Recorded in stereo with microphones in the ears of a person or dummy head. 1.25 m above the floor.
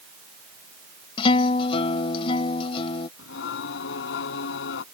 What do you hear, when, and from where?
1.2 s a guitar: 40° left (ahead or behind)
3.2 s singing: 75° left (ahead or behind)